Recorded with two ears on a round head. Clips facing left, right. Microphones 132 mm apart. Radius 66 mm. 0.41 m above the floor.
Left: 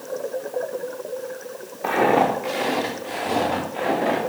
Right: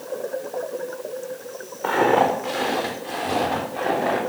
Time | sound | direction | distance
1.8 | footsteps | 15° left (ahead or behind) | 3.5 m